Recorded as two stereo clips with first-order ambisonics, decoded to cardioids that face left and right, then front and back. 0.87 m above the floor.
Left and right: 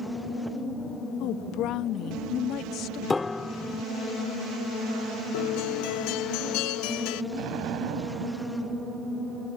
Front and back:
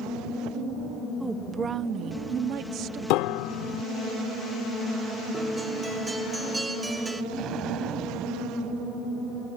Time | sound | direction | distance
1.2 | a woman speaking | 95° left | ?
3.1 | a piano | 10° left | ?
5.3 | a guitar | 100° left | ?
7.3 | an explosion | 130° right | ?